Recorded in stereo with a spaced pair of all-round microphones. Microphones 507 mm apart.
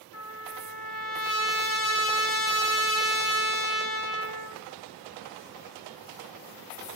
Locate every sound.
0.1 s a trumpet: 25° left (ahead or behind), 0.7 m